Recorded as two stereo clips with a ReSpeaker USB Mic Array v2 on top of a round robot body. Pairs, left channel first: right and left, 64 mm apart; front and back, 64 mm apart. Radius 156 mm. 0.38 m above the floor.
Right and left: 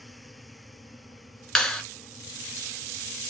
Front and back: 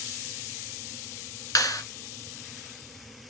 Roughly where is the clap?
Ahead.